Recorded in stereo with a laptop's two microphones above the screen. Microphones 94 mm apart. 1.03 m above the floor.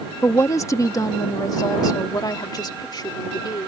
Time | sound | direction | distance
0.2 | a woman speaking | 30° left (ahead or behind) | ?